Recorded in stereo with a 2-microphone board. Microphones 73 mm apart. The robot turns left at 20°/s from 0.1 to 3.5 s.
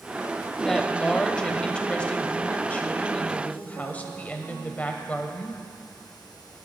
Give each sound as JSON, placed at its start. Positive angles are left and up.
{"t": 0.6, "sound": "a woman speaking", "side_deg": 5, "distance_m": 0.9}